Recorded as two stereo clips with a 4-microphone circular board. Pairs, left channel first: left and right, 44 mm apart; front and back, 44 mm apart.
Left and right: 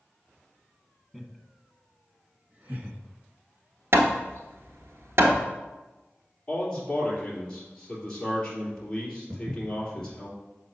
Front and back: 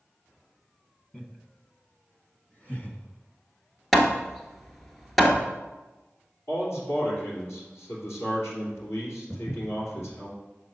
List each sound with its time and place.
1.1 s laughter: straight ahead, 1.0 m; by 3.0 s 50° right, 1.6 m
3.9 s hammering: 90° right, 1.1 m
6.5 s a man speaking: 10° left, 3 m
9.3 s footsteps: 70° right, 2.5 m